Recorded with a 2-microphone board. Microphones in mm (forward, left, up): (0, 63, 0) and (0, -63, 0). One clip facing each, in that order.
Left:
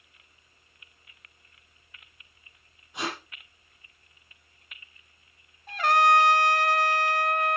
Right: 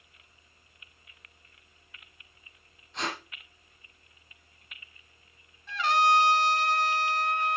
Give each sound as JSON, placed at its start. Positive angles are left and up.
{"t": 2.9, "sound": "tape being pulled", "side_deg": 10, "distance_m": 6.5}
{"t": 5.7, "sound": "a trumpet", "side_deg": 50, "distance_m": 1.1}